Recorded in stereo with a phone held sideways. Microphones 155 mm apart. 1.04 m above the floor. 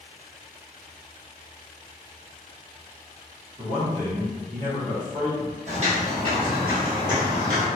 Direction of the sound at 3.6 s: 55° right (ahead or behind).